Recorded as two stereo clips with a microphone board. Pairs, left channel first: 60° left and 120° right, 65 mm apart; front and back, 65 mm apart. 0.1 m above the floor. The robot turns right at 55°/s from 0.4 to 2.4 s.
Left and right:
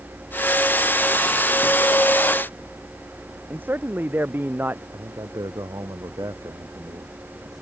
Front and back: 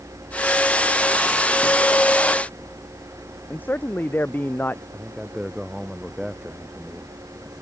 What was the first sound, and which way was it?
A man speaking, 60° right.